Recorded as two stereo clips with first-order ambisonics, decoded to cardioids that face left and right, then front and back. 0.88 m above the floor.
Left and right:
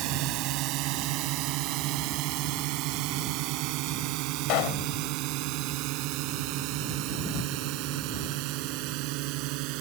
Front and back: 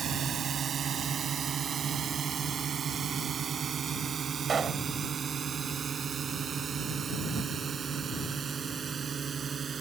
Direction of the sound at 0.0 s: 120° right.